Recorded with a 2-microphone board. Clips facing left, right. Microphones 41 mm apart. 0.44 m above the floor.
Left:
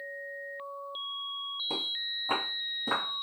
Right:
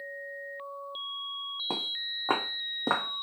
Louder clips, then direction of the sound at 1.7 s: Right 1 dB; 45° right (ahead or behind).